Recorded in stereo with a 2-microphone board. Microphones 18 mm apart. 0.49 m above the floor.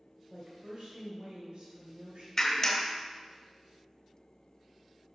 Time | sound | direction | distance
0.3 | a woman speaking | 65° right (ahead or behind) | 2.0 m
2.4 | a clap | 20° left (ahead or behind) | 1.1 m